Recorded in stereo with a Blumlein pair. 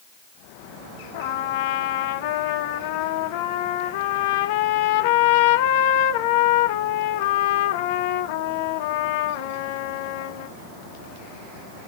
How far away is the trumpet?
About 0.6 m.